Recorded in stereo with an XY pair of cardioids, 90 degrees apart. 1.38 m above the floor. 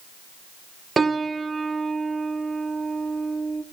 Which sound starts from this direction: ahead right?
A piano, at 1.0 s.